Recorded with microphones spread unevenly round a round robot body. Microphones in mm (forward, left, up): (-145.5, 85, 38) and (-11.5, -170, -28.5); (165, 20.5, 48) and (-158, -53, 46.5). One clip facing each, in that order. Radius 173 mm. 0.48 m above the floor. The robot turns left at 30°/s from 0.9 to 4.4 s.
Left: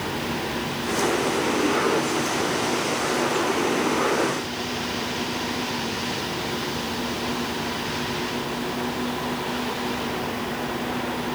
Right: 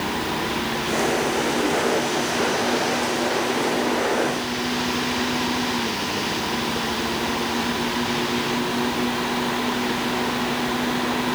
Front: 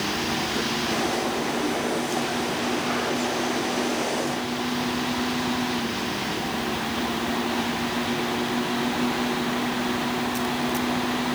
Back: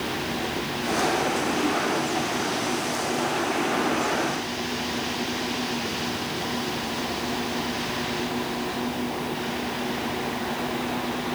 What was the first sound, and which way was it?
Only background noise.